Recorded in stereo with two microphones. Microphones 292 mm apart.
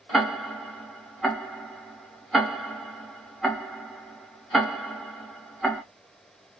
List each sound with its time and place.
0.1 s ticking: centre (ahead or behind), 0.6 m